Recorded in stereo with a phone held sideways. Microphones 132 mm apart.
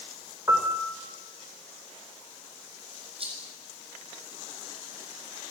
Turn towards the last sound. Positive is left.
turn(degrees=-45)  # may be behind; listen again after turning